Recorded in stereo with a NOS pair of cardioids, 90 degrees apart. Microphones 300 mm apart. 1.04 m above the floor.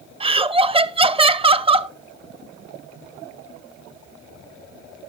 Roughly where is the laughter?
Ahead.